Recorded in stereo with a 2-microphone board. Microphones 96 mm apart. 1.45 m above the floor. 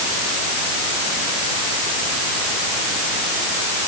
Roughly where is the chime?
No chime in this recording.